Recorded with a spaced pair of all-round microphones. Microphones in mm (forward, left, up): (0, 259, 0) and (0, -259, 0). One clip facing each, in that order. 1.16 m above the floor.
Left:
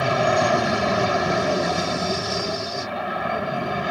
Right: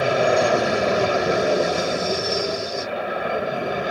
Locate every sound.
0.0 s an aircraft: 20° left (ahead or behind)